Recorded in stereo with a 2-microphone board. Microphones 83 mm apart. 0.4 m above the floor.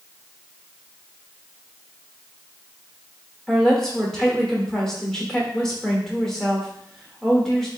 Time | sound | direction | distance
3.5 | a woman speaking | 5° left (ahead or behind) | 0.9 m